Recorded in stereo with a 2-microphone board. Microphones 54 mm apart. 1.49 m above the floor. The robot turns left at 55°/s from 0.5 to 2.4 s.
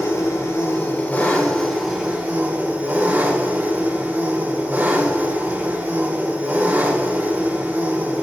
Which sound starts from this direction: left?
An engine running, at 0.0 s.